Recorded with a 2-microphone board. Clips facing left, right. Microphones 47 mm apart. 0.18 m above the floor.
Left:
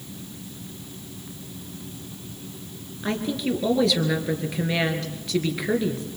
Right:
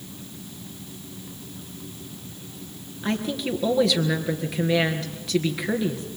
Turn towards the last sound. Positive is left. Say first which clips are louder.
# left 1 dB
turn(degrees=0)  # may be behind; listen again after turning